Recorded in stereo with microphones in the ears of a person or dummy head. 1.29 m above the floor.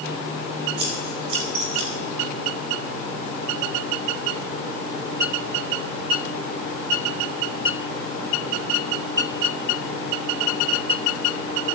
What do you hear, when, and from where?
0.8 s scissors: 30° right (ahead or behind), 3 m